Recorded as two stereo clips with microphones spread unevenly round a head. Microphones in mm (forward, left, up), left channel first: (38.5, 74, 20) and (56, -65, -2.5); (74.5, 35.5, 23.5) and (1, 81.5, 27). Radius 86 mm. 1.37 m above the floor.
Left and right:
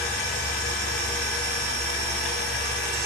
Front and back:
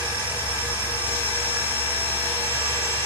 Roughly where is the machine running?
Left.